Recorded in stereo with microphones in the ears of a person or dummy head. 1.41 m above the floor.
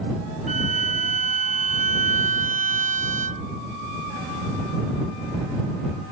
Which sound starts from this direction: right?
A violin, at 0.5 s.